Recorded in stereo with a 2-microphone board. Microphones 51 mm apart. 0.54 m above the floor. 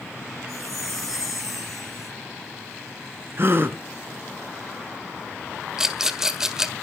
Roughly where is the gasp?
Right.